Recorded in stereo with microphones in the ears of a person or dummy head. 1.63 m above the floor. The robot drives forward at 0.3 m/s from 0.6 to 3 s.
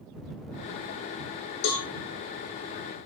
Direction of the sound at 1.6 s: 65° left (ahead or behind).